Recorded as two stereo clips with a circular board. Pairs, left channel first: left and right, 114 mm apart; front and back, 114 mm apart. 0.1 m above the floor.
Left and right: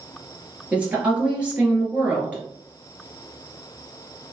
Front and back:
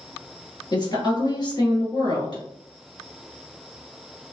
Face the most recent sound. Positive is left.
turn(degrees=-15)